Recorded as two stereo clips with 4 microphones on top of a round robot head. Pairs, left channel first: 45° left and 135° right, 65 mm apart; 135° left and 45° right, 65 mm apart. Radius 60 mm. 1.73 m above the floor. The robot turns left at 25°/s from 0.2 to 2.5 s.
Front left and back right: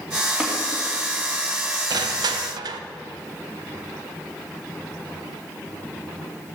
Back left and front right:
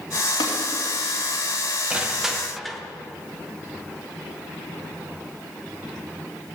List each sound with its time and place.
0.4 s tapping: 145° left, 3 m
1.9 s crushing: 120° right, 0.9 m; by 2.8 s 135° right, 0.9 m